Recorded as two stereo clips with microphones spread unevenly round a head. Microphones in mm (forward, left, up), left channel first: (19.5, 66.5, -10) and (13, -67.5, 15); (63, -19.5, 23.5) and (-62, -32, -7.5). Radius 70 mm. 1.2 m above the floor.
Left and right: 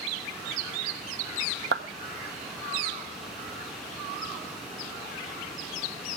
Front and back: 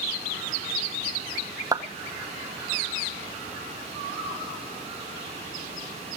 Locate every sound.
1.7 s a clap: 110° right, 1.5 m